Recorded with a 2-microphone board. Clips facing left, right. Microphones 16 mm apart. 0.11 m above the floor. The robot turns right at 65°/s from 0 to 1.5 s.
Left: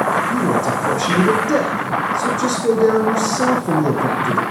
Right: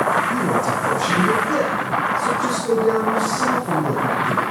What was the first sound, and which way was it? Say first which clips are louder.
A man speaking: left 2 dB; 15° right.